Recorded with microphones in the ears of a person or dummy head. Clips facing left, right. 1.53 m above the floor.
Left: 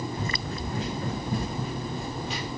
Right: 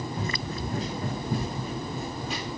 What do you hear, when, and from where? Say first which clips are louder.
0.1 s running footsteps: even; 30° right (ahead or behind), 4 m; by 2.5 s 45° right (ahead or behind), 3 m